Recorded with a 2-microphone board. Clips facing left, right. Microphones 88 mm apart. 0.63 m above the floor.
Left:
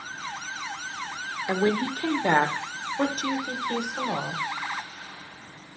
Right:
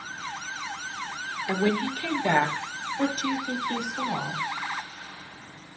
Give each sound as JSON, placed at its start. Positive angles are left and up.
{"t": 1.5, "sound": "a woman speaking", "side_deg": 25, "distance_m": 1.6}